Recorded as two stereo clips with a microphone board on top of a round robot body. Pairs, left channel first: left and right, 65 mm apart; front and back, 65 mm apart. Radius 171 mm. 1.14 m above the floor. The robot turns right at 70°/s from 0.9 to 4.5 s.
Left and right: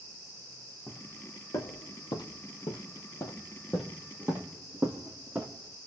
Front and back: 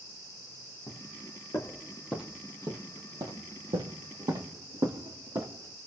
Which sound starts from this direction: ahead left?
Footsteps, at 0.9 s.